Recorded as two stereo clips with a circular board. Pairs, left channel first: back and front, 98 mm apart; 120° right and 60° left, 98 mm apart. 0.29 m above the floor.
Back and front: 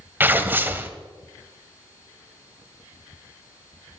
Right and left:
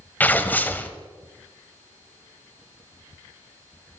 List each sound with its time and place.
0.2 s tearing paper: 60° right, 0.8 m